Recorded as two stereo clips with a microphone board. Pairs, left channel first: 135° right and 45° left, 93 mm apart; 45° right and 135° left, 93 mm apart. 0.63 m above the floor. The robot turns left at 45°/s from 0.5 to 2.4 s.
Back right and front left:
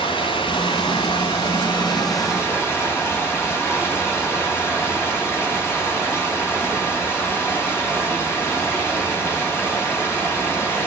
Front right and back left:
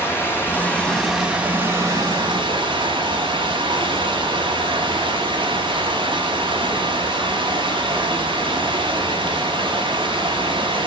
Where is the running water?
110° right, 4 m; by 10.9 s 165° left, 4 m.